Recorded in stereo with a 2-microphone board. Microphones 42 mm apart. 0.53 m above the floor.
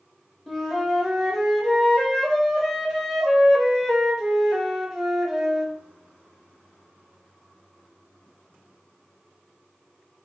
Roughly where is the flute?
Centre.